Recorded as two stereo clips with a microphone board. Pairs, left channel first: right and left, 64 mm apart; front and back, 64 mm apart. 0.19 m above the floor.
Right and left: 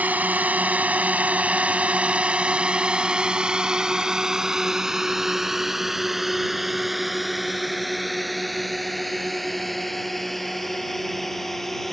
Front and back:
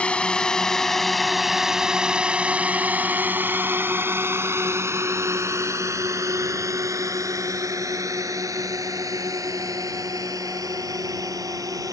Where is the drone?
55° left; by 11.9 s 175° right.